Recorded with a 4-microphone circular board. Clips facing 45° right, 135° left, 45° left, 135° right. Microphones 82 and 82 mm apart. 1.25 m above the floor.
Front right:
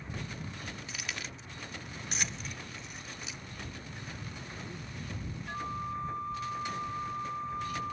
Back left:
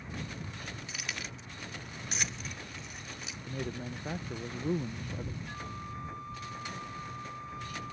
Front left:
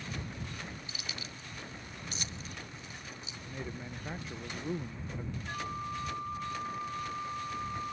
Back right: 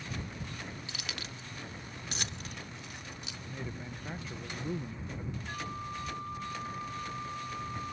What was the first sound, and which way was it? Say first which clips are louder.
Keys jangling: back left 1 dB, back right 2 dB; 135° right.